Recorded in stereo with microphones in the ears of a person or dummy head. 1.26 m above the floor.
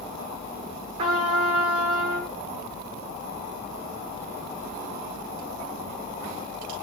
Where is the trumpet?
45° right (ahead or behind), 0.8 m.